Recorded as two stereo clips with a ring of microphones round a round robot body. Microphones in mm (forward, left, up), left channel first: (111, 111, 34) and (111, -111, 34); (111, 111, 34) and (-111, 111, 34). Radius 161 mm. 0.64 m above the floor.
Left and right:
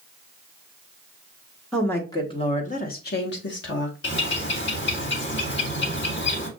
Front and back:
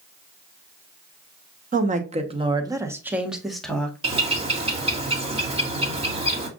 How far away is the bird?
About 1.9 m.